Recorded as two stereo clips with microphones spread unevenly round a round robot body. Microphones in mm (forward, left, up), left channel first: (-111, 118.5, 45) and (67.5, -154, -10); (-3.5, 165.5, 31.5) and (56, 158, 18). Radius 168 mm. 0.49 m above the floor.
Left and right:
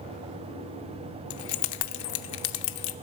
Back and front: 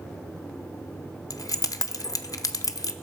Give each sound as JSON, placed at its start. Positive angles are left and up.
{"t": 1.3, "sound": "keys jangling", "azimuth_deg": 140, "distance_m": 0.7}